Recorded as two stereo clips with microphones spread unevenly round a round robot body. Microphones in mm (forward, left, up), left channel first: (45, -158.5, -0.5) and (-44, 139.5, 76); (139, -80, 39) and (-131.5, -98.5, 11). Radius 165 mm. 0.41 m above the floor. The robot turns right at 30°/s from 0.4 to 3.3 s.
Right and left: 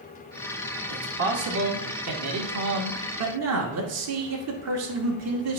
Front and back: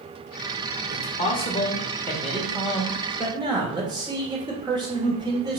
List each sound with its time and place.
0.9 s a man speaking: 55° left, 1.3 m; by 5.6 s 130° left, 1.3 m